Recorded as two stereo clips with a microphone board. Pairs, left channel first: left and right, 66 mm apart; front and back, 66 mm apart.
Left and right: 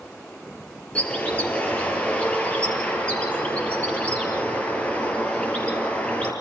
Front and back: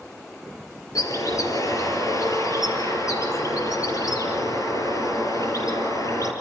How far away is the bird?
About 3.5 m.